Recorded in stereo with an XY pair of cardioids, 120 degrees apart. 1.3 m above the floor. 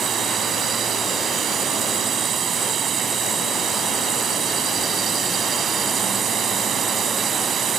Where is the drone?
45° right.